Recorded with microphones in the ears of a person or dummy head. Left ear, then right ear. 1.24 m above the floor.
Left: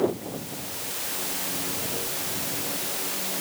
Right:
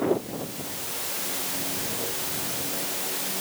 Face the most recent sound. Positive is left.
No sound to turn to.